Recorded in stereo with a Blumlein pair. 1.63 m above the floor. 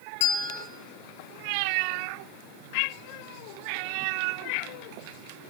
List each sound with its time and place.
0.2 s a bell: 50° left, 0.6 m